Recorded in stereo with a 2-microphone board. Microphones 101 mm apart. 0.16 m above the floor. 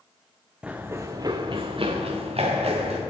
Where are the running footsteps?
10° right (ahead or behind), 0.7 m; by 3.0 s 80° right, 1.5 m.